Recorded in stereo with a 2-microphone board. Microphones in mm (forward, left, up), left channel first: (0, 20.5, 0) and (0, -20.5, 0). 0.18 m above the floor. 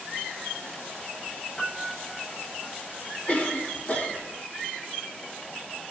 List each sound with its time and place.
1.6 s a piano: 20° left (ahead or behind), 1.4 m
3.3 s a cough: 35° left (ahead or behind), 1.2 m